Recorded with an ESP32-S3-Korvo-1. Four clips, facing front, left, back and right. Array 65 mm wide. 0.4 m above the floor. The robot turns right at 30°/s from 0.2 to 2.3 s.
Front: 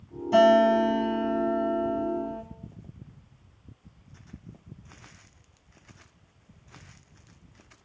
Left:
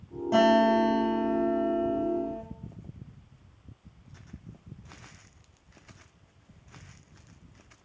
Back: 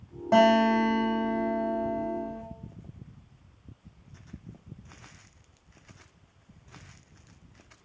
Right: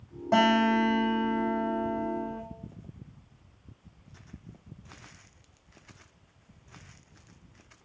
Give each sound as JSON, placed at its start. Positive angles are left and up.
{"t": 0.3, "sound": "a guitar", "azimuth_deg": -155, "distance_m": 4.0}